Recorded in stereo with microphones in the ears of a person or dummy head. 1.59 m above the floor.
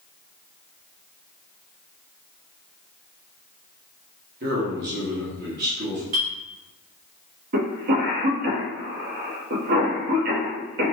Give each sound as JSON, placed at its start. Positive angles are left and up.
{"t": 4.4, "sound": "a man speaking", "side_deg": -50, "distance_m": 1.3}
{"t": 6.1, "sound": "a clink", "side_deg": -50, "distance_m": 1.4}
{"t": 7.5, "sound": "a cough", "side_deg": -55, "distance_m": 1.0}